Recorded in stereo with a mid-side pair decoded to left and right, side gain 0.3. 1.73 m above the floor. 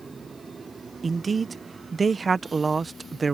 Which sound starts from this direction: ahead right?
A man speaking, at 1.0 s.